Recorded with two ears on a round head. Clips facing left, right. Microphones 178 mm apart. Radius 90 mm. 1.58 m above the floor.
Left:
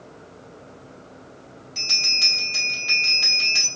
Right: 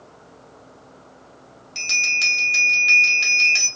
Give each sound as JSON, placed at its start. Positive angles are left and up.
{"t": 1.8, "sound": "a bell", "side_deg": -30, "distance_m": 0.9}